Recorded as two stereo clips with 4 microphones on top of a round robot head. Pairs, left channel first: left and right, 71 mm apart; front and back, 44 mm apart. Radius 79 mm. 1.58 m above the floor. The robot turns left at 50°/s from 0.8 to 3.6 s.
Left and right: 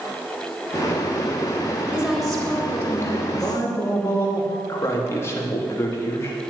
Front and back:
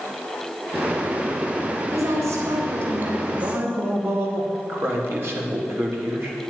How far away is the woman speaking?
About 4.5 m.